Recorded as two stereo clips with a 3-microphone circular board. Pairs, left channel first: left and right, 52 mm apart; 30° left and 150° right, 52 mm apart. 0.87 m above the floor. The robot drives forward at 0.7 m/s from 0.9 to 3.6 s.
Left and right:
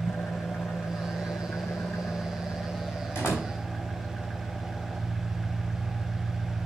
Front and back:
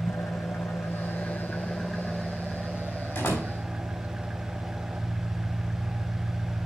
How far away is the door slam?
About 4.5 m.